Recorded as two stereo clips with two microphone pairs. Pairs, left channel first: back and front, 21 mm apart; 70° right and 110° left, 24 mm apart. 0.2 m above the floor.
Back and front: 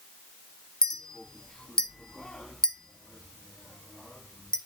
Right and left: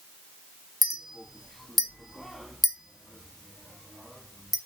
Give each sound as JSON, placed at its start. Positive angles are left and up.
{"t": 0.8, "sound": "a clink", "azimuth_deg": -145, "distance_m": 0.8}